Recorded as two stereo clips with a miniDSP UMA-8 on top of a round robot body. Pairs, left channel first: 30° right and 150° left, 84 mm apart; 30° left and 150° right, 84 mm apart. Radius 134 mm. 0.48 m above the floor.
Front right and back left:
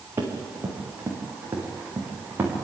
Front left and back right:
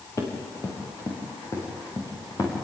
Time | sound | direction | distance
0.2 | running footsteps | 85° left | 4.5 m